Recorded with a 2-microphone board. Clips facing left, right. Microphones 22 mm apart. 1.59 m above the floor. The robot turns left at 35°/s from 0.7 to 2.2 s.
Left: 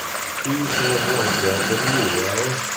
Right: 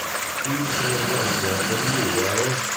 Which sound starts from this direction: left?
A man speaking, at 0.5 s.